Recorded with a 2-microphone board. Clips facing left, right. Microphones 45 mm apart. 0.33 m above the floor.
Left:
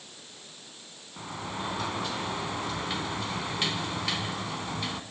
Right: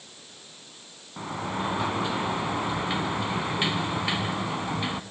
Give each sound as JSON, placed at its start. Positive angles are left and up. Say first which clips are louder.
{"t": 1.2, "sound": "a sliding door", "louder": "right 5 dB", "side_deg": -15, "distance_m": 0.9}